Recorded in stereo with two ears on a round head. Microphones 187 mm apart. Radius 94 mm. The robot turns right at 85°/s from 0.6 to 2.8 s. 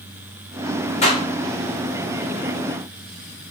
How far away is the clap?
About 6 m.